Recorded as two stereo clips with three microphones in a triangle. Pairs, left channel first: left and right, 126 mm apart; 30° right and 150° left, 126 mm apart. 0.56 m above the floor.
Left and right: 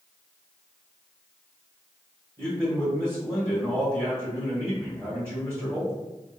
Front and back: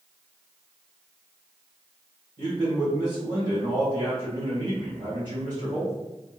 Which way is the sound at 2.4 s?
160° right.